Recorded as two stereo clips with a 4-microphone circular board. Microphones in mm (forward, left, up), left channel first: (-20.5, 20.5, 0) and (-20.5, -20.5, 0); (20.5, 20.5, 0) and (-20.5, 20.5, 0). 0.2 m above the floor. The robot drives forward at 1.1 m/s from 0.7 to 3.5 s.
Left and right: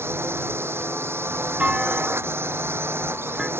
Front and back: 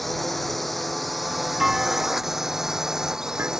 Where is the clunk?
105° right; by 3.5 s 165° right.